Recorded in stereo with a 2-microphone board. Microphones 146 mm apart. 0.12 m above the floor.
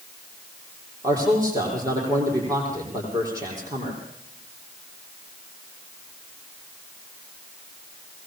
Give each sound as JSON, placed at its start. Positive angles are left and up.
{"t": 1.0, "sound": "a man speaking", "side_deg": -25, "distance_m": 5.5}